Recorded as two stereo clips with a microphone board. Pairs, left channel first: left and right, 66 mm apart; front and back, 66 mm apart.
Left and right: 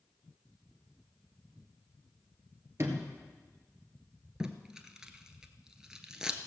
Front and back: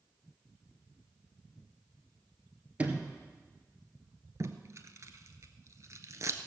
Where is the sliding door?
120° right, 1.8 m.